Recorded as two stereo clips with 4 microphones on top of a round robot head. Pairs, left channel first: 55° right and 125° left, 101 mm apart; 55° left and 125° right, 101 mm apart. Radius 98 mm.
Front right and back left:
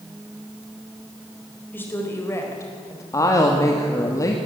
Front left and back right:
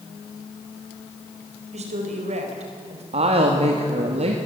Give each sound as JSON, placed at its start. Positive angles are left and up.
{"t": 1.7, "sound": "a woman speaking", "azimuth_deg": -125, "distance_m": 4.5}
{"t": 3.1, "sound": "a woman speaking", "azimuth_deg": -110, "distance_m": 2.0}